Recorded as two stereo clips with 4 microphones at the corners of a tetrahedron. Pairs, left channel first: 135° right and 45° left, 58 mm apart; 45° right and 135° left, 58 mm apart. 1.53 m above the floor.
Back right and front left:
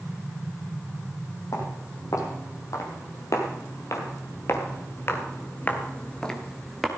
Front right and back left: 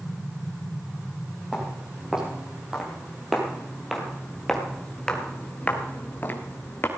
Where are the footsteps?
150° right, 4.5 m; by 6.9 s 40° right, 1.9 m.